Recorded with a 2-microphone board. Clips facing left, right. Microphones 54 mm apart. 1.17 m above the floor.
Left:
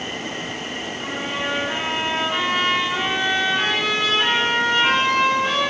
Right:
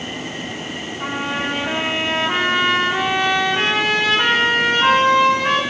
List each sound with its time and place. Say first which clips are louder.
1.0 s a trumpet: right 4 dB; 55° right (ahead or behind), 3 m